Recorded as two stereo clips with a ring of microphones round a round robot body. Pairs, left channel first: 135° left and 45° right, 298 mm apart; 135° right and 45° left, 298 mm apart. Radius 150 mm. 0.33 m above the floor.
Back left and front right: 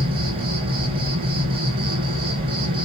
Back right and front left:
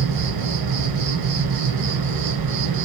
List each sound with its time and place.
0.0 s an insect: 30° left, 4 m